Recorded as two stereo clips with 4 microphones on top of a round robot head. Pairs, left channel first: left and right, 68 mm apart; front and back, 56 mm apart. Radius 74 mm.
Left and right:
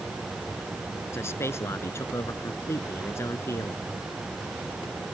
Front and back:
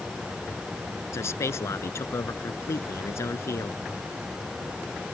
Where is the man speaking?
30° left.